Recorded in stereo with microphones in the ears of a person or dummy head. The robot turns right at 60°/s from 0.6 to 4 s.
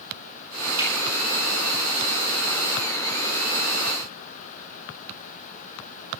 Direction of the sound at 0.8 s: 20° right (ahead or behind).